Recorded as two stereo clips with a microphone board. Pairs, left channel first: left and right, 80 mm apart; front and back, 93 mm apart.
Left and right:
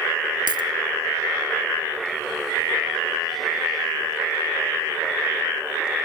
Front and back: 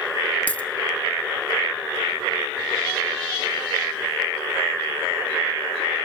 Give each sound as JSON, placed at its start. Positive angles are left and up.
{"t": 0.5, "sound": "a dropped coin", "azimuth_deg": -75, "distance_m": 1.6}